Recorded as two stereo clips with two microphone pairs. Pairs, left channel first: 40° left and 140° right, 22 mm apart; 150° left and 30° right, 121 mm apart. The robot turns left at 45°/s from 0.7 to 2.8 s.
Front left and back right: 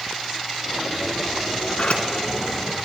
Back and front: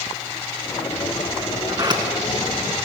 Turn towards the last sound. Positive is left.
turn(degrees=-20)